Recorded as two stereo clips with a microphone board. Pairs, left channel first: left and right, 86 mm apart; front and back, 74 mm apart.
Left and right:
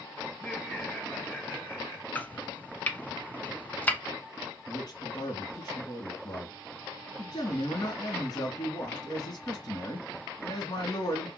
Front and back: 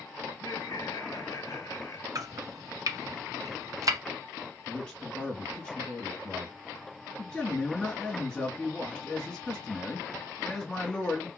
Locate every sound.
0.3 s laughter: 15° left, 4.5 m; by 2.0 s 35° left, 3.5 m
2.1 s chopping: 155° left, 1.1 m
4.7 s a man speaking: 75° left, 2 m